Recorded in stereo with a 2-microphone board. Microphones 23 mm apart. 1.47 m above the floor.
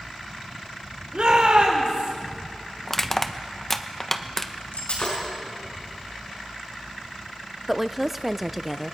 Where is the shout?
55° right (ahead or behind), 5 m.